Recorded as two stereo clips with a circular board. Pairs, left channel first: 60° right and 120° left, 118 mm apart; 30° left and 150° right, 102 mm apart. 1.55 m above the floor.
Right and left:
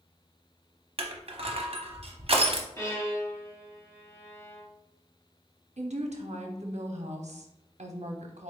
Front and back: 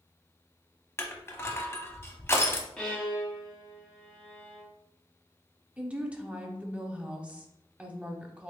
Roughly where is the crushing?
Left.